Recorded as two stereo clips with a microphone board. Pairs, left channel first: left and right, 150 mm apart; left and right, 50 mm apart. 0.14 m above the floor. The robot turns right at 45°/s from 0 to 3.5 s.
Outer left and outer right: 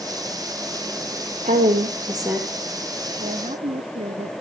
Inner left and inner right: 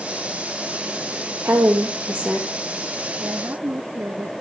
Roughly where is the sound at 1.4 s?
Ahead right.